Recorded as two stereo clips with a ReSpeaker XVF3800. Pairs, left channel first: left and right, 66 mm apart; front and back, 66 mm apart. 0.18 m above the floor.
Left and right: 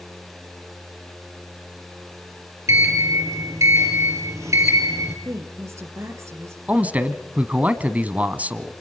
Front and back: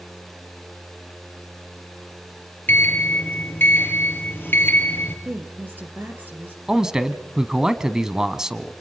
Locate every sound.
2.7 s a sliding door: 55° right, 2.5 m
5.2 s a woman speaking: 125° right, 3.5 m
6.7 s a man speaking: 115° right, 1.2 m